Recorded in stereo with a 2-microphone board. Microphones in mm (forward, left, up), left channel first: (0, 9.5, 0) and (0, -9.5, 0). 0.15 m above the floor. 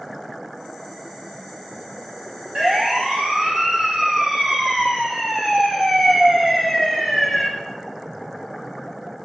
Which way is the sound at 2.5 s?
65° right (ahead or behind).